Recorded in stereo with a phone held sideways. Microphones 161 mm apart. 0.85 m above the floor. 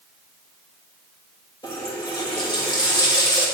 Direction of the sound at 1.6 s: 25° left (ahead or behind).